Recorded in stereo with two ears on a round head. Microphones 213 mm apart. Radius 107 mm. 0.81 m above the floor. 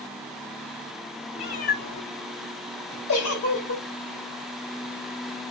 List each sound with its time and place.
1.4 s a cat meowing: 25° left (ahead or behind), 0.8 m; by 3.0 s 85° left, 1.3 m
3.1 s a giggle: 70° left (ahead or behind), 1.5 m